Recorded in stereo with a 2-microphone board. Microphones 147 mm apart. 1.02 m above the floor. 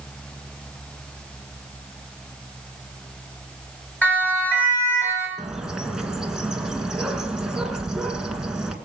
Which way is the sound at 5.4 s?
5° right (ahead or behind).